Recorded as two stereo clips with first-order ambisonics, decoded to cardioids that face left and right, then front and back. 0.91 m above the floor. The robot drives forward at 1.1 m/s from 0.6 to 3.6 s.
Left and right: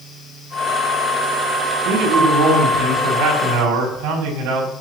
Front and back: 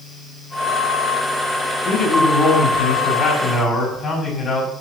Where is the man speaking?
50° right, 6 m; by 4.7 s 65° right, 5 m.